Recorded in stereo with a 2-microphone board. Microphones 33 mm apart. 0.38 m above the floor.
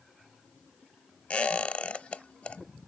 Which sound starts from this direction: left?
A squeak, at 1.3 s.